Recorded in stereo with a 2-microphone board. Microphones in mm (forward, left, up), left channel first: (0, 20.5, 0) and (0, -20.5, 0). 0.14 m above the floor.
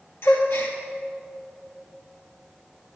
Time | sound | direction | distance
0.2 | a gasp | 65° left (ahead or behind) | 2 m